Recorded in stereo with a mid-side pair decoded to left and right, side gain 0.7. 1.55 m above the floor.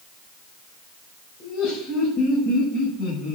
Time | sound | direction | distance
1.4 | laughter | 55° left | 6 m